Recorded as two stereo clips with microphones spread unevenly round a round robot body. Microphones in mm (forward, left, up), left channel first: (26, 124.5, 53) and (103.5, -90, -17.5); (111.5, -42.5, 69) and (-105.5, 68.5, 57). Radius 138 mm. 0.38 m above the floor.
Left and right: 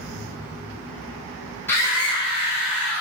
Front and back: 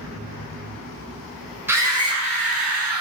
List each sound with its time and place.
1.7 s a scream: 145° right, 1.2 m; by 3.0 s 175° left, 1.5 m